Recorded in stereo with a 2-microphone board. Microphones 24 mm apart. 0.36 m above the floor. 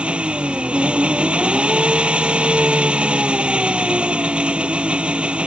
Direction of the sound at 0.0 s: 50° right (ahead or behind).